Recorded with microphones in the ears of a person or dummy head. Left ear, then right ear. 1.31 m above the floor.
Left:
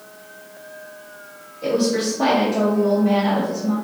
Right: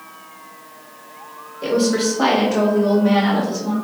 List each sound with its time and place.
1.6 s a woman speaking: 35° right (ahead or behind), 1.4 m; by 3.7 s 70° right (ahead or behind), 1.0 m